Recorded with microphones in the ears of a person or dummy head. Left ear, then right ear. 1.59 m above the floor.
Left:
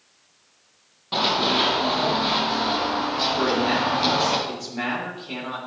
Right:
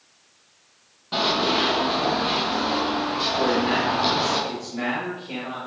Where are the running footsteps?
10° left (ahead or behind), 2.5 m; by 4.4 s 20° left (ahead or behind), 4.5 m.